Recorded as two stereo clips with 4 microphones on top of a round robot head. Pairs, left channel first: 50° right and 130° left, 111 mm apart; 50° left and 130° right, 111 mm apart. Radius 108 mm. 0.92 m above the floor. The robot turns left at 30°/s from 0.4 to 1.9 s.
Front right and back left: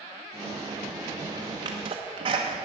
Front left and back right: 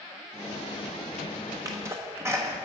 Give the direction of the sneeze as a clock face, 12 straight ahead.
6 o'clock.